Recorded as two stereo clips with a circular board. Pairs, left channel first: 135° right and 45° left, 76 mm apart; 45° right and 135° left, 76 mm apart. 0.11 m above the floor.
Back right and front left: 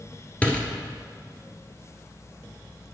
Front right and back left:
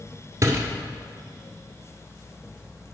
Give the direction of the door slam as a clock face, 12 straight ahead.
7 o'clock.